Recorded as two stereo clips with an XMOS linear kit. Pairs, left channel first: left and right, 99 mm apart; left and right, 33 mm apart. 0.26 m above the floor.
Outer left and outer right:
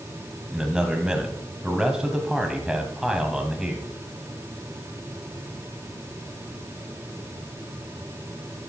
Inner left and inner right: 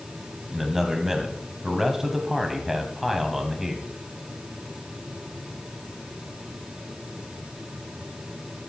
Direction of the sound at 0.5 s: 5° right (ahead or behind).